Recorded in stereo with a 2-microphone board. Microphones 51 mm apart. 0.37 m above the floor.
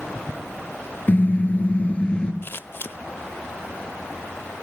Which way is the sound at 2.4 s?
45° left (ahead or behind).